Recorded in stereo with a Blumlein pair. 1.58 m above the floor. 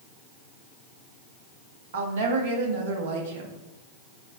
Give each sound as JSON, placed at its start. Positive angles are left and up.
{"t": 1.9, "sound": "a woman speaking", "azimuth_deg": -55, "distance_m": 0.8}